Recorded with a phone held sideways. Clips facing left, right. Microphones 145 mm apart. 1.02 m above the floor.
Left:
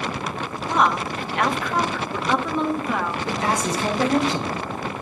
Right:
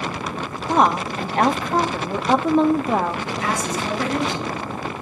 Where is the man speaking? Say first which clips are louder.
Left 1 dB; 35° left (ahead or behind), 5 m.